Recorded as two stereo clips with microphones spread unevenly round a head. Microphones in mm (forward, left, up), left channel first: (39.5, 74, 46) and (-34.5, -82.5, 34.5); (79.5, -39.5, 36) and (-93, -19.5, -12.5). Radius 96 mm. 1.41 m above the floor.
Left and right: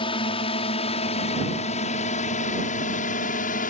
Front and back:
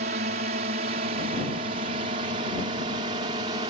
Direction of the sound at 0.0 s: 125° left.